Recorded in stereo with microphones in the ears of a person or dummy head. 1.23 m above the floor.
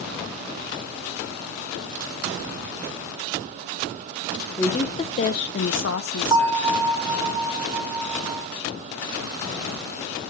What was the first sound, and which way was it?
A woman speaking, 15° left (ahead or behind).